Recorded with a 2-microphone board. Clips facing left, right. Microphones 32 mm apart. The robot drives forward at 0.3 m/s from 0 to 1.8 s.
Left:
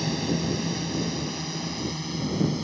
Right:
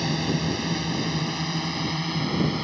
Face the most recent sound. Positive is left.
turn(degrees=-35)  # may be behind; listen again after turning